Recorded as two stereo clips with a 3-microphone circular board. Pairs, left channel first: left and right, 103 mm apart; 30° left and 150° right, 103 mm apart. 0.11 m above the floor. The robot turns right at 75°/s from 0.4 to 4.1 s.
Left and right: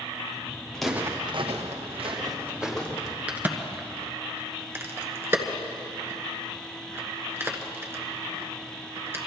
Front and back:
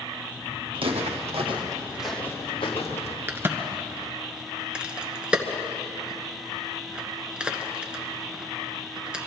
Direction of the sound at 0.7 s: 170° left.